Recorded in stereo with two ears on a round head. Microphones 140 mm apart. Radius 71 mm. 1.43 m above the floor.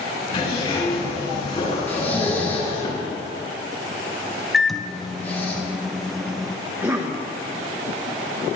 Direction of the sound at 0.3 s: 45° left (ahead or behind).